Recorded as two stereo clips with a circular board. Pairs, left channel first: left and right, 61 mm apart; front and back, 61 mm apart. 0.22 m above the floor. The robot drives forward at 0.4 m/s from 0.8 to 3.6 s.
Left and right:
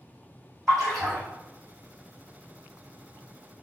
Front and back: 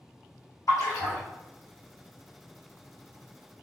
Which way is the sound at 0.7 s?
5° left.